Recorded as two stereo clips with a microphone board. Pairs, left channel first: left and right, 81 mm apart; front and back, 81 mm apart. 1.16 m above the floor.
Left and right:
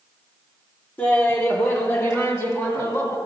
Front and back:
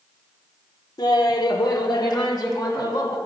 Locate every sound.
1.0 s laughter: 20° left, 0.9 m; by 3.2 s 40° left, 2 m